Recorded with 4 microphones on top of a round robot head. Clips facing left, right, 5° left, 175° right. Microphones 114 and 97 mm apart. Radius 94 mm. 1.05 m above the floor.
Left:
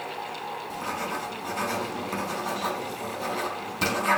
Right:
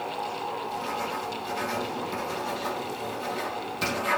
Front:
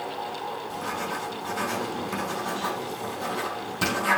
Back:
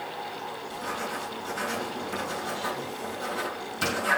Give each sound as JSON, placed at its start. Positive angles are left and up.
{"t": 0.7, "sound": "writing", "azimuth_deg": 45, "distance_m": 4.5}